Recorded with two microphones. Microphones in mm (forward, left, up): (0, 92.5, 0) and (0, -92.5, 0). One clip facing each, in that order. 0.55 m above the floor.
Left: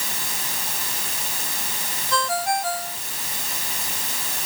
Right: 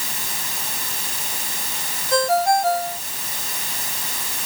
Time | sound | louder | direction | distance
2.1 | a ringtone | right 7 dB | 40° right (ahead or behind) | ?